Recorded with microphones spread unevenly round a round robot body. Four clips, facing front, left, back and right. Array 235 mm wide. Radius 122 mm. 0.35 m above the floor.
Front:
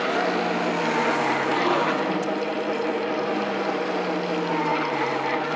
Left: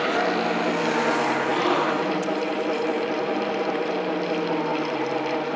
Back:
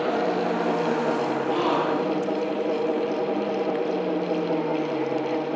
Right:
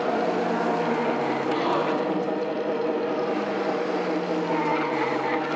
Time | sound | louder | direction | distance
1.5 | a gasp | even, back 1 dB | 140° left | 9.5 m